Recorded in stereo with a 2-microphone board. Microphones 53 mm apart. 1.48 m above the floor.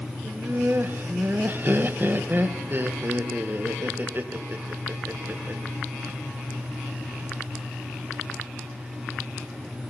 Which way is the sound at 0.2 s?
35° right (ahead or behind).